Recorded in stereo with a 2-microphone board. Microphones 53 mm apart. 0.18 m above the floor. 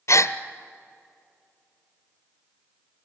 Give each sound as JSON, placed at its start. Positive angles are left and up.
{"t": 0.1, "sound": "a gasp", "side_deg": 65, "distance_m": 0.7}